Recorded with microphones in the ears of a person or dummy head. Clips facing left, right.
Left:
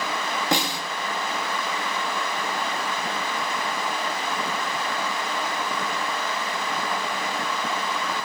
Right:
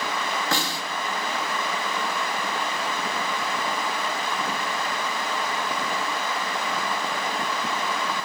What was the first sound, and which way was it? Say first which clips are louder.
A snare drum: left 3 dB; 20° left (ahead or behind).